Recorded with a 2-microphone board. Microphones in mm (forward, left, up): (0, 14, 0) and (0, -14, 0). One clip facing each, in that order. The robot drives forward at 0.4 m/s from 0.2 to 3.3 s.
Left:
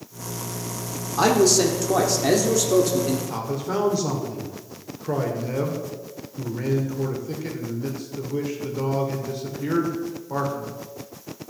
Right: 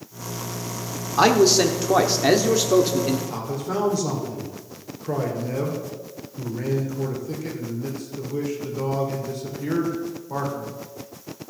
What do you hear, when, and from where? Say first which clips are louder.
1.2 s a man speaking: right 2 dB; 25° right (ahead or behind), 1.2 m; by 3.2 s 30° right (ahead or behind), 1.1 m
3.3 s a man speaking: left 1 dB; 15° left (ahead or behind), 1.9 m